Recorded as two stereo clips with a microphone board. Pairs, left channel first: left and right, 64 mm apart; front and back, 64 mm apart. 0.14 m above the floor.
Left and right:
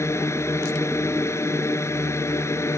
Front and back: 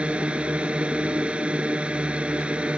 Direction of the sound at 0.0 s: 110° left.